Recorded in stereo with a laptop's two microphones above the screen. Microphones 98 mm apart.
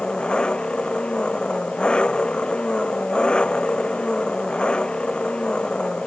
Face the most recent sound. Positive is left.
turn(degrees=10)  # may be behind; listen again after turning